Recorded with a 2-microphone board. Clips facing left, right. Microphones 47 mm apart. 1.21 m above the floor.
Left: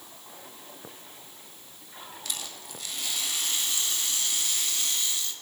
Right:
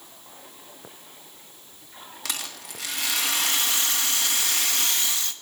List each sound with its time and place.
2.2 s a rattle: 85° right, 1.5 m